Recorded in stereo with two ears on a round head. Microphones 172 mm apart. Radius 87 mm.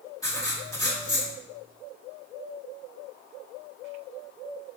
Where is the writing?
20° left (ahead or behind), 1.9 m.